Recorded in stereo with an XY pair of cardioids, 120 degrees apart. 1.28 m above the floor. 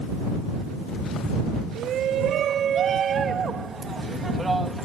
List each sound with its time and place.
1.8 s a shout: 65° right; by 4.9 s 15° right